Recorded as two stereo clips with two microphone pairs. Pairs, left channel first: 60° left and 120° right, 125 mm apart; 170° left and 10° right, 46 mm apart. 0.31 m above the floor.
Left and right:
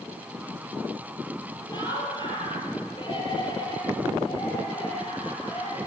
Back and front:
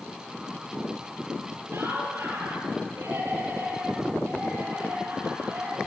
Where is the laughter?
5° left, 8 m; by 5.8 s 15° left, 12 m.